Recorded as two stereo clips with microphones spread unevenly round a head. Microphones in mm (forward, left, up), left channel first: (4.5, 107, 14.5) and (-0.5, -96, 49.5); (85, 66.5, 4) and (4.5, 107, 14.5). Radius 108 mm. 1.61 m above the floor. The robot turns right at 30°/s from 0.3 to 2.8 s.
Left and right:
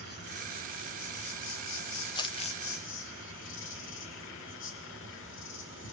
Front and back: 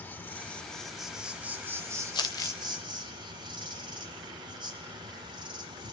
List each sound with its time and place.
0.0 s an insect: 45° left, 6 m; by 5.9 s 120° left, 6 m
2.1 s crumpling: 15° left, 1.1 m; by 2.6 s 30° left, 1.1 m